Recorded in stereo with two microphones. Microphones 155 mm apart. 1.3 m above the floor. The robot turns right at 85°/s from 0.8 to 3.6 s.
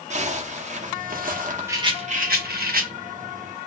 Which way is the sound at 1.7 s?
165° right.